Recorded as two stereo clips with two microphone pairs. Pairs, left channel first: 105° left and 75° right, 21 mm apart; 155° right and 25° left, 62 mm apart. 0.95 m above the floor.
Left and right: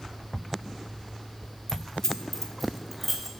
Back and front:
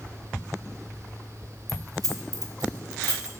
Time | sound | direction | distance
1.7 | keys jangling | 45° left | 1.3 m